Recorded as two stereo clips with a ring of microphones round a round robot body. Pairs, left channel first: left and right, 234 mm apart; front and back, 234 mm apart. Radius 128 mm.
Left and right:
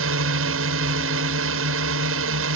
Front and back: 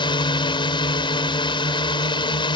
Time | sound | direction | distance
0.0 | a drone | 65° right | ?